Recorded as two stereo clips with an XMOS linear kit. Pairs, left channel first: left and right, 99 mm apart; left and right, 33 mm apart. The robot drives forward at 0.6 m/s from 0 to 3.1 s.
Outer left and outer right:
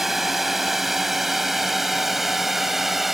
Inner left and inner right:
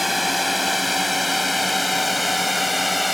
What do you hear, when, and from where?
0.0 s a drone: 5° right (ahead or behind)